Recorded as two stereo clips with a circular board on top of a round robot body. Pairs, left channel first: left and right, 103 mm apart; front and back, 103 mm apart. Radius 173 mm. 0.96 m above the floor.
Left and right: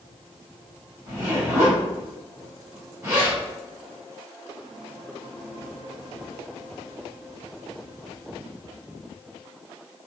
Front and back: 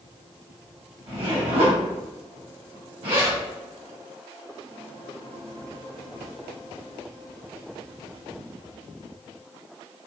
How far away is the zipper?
About 2.0 m.